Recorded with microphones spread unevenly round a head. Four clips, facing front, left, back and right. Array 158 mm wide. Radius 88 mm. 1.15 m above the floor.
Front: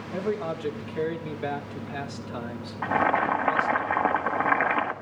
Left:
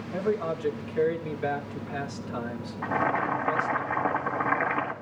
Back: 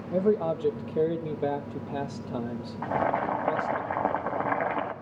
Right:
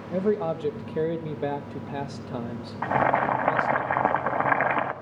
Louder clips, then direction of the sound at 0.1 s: Right 3 dB, back 4 dB; 140° right.